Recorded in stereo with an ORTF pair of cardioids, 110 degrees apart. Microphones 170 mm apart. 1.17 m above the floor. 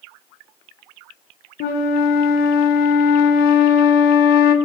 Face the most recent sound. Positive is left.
turn(degrees=70)